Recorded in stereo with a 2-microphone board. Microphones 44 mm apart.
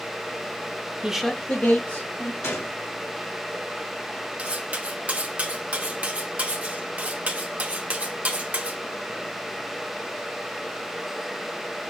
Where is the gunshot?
70° left (ahead or behind), 0.8 m.